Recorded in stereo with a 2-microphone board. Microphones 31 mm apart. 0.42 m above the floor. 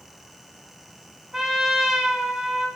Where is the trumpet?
30° right (ahead or behind), 1.8 m.